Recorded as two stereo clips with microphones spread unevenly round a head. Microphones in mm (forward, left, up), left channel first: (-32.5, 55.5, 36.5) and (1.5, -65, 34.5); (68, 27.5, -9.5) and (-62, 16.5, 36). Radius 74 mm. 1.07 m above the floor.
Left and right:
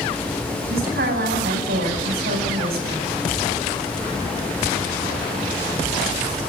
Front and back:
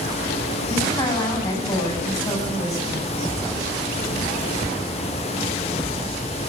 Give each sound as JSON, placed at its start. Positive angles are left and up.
{"t": 0.7, "sound": "a woman speaking", "azimuth_deg": -65, "distance_m": 9.5}